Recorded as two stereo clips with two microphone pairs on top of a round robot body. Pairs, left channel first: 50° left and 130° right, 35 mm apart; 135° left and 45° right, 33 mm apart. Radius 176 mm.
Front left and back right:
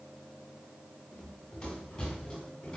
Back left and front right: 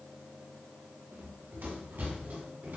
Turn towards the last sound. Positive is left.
turn(degrees=-20)